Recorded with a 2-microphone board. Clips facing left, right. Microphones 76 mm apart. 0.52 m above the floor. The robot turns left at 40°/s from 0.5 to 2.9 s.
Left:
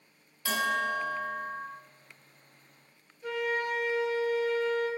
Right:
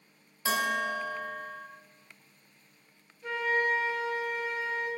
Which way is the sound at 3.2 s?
10° left (ahead or behind).